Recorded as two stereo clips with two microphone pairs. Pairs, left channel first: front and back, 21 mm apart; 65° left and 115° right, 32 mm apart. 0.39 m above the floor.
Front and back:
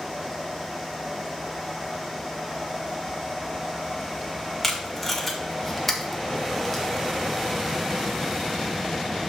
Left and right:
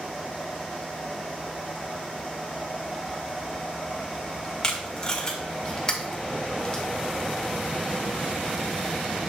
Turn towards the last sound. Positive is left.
turn(degrees=75)